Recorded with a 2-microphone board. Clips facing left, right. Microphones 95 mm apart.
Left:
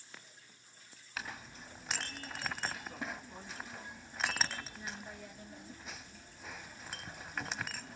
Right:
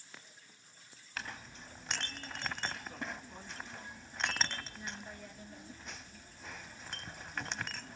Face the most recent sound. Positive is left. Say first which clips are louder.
# even
turn(degrees=5)  # may be behind; listen again after turning